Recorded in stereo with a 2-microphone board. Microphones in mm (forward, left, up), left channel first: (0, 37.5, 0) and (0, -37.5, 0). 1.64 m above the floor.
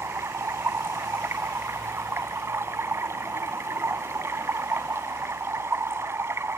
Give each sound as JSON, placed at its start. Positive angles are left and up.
{"t": 0.0, "sound": "running water", "side_deg": -35}